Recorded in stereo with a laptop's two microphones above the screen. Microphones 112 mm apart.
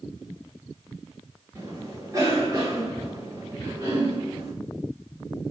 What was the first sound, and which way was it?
A cough, 25° right (ahead or behind).